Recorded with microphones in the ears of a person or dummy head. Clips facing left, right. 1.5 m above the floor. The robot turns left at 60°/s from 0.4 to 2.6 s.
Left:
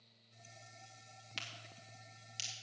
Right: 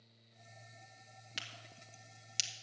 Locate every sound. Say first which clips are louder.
1.4 s a crack: even; 10° right (ahead or behind), 1.4 m; by 2.5 s 75° right (ahead or behind), 1.4 m